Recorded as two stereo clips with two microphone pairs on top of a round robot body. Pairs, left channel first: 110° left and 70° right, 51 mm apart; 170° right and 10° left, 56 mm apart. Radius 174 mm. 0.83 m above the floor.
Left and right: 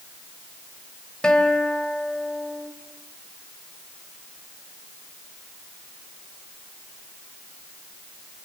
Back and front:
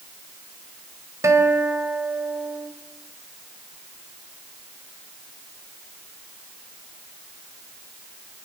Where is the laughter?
No laughter in this recording.